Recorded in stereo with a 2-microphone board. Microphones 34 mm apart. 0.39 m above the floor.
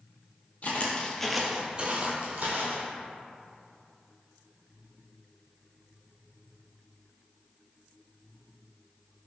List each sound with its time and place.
0.6 s footsteps: 45° left (ahead or behind), 0.6 m; by 2.9 s 60° right (ahead or behind), 1.1 m